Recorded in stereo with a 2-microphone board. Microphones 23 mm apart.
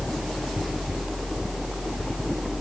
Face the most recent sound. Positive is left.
No sound to turn to.